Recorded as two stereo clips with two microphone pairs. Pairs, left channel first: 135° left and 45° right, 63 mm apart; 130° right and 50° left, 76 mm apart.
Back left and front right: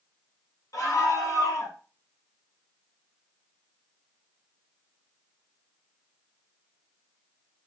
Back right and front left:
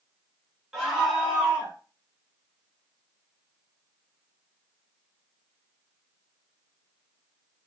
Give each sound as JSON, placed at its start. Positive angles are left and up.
{"t": 0.7, "sound": "a scream", "azimuth_deg": 135, "distance_m": 4.0}